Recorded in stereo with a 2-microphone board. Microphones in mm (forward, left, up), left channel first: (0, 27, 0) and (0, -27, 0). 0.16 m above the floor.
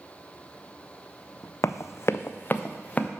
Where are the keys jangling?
No keys jangling in this recording.